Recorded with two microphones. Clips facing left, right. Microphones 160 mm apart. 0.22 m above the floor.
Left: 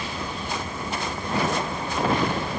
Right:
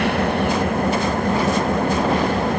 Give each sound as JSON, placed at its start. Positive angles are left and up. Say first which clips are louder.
{"t": 0.0, "sound": "an engine running", "louder": "right 13 dB", "side_deg": -80}